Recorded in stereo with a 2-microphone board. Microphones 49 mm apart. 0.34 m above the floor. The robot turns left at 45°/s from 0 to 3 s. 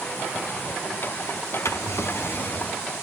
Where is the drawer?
80° left, 0.7 m; by 2.8 s 30° left, 0.7 m.